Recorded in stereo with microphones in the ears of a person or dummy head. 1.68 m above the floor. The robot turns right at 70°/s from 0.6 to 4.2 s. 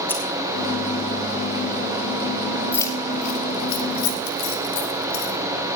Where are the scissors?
15° left (ahead or behind), 1.8 m.